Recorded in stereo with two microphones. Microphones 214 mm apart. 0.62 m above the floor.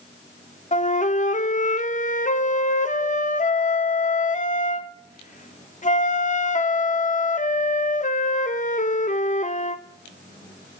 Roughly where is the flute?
Left.